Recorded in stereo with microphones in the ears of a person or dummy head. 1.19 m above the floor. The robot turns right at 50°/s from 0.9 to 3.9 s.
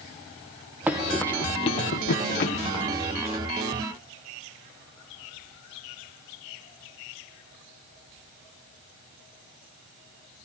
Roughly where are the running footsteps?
Centre.